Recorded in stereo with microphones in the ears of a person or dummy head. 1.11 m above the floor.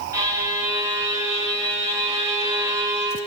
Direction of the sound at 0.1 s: 15° right (ahead or behind).